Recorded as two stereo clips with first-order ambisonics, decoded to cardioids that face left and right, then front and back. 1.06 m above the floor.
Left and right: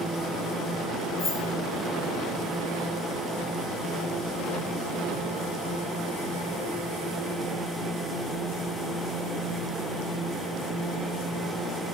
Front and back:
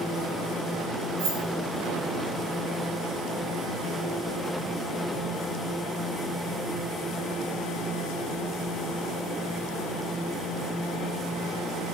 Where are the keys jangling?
160° left, 1.9 m.